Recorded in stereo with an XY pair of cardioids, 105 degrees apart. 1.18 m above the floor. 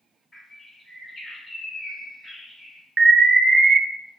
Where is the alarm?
40° right, 0.7 m.